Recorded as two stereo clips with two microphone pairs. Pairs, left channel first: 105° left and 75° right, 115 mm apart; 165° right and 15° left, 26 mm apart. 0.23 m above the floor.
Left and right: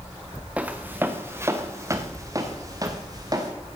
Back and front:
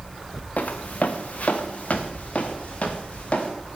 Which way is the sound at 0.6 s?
155° right.